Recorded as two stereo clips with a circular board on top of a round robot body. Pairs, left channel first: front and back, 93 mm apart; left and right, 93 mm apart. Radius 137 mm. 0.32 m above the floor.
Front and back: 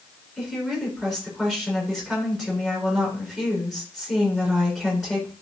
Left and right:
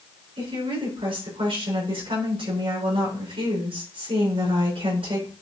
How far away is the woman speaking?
About 5 m.